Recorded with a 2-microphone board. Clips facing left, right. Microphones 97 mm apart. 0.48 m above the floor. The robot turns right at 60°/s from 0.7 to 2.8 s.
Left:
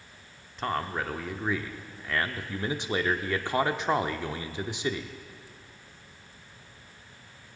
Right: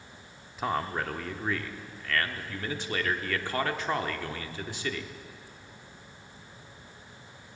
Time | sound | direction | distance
0.6 | a man speaking | 5° right (ahead or behind) | 0.7 m